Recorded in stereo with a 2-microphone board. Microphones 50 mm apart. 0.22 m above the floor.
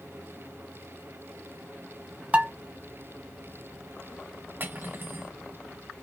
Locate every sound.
2.3 s dishes clattering: 30° right (ahead or behind), 0.9 m
4.6 s cutlery clinking: 45° right (ahead or behind), 1.0 m